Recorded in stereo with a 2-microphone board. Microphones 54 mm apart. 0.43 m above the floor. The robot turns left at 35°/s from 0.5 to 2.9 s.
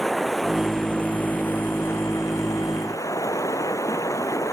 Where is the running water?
175° left; by 4.5 s 90° left.